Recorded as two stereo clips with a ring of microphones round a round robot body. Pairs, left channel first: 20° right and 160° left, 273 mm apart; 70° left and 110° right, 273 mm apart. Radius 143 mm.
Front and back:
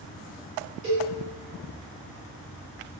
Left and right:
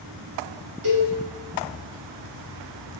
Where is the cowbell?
150° right, 1.6 m.